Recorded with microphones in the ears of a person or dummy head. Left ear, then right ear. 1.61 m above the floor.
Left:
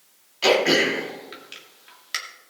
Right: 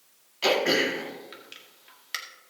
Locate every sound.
0.4 s throat clearing: centre (ahead or behind), 1.8 m